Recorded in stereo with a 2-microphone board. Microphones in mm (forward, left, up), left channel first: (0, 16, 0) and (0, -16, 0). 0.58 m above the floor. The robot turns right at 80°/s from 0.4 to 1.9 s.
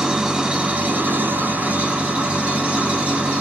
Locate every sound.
0.0 s an engine running: 165° right, 3.5 m; by 3.4 s 45° right, 3.5 m